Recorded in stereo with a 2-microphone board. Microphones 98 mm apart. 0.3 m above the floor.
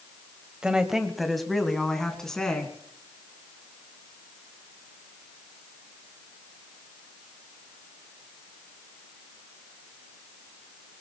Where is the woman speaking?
10° right (ahead or behind), 1.5 m; by 2.7 s 5° left (ahead or behind), 4 m.